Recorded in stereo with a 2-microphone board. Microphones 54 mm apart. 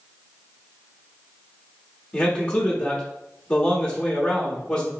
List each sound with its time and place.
2.1 s a man speaking: 20° left (ahead or behind), 1.1 m